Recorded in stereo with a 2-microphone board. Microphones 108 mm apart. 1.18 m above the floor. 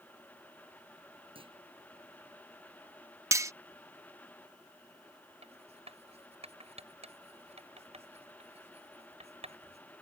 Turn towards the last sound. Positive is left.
turn(degrees=-80)